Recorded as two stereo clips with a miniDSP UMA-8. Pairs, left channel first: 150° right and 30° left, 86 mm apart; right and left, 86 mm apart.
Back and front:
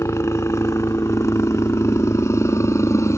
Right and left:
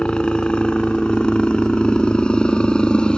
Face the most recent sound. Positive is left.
turn(degrees=-160)